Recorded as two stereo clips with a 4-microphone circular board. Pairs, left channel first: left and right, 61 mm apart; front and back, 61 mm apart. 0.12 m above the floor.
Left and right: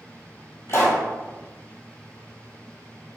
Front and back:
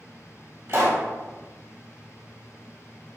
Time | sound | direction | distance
0.7 | a pop | 135° left | 1.3 m